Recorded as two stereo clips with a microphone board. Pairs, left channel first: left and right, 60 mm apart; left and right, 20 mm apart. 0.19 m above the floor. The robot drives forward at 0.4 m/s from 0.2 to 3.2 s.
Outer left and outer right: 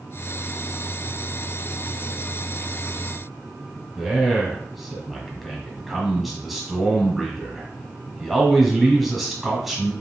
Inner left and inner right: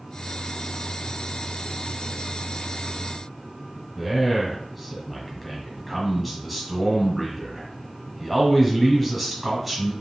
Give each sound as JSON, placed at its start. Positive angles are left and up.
{"t": 4.0, "sound": "a man speaking", "side_deg": 0, "distance_m": 1.0}